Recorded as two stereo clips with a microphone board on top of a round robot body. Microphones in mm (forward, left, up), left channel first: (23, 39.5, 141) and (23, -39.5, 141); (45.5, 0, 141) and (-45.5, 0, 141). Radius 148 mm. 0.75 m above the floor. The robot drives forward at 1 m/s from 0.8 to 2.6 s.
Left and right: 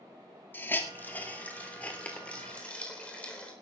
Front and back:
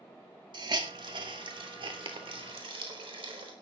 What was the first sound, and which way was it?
A hiss, 150° left.